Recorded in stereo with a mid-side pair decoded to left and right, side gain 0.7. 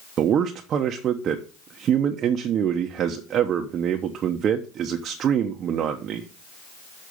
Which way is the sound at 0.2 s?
45° right.